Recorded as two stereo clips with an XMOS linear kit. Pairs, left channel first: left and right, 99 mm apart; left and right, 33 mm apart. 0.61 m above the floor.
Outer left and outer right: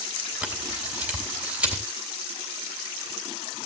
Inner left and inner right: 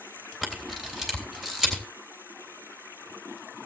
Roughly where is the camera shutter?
Centre.